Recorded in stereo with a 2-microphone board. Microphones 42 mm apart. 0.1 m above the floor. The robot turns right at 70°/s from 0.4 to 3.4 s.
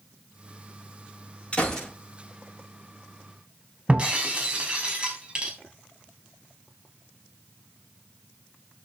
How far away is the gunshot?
About 8 m.